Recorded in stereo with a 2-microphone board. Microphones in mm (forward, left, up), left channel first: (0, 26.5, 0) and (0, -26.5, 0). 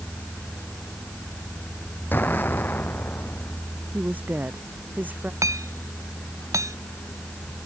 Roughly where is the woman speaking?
Right.